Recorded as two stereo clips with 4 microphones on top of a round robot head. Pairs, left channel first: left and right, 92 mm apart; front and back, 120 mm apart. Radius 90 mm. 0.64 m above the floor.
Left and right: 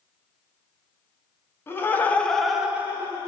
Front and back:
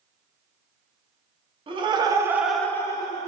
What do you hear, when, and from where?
1.7 s laughter: 150° left, 0.9 m; by 3.3 s 35° right, 0.8 m